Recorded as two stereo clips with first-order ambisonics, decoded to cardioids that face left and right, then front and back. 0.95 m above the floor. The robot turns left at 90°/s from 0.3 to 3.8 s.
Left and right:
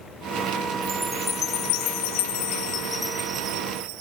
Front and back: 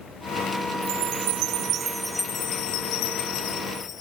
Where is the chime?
155° right; by 4.0 s 65° right.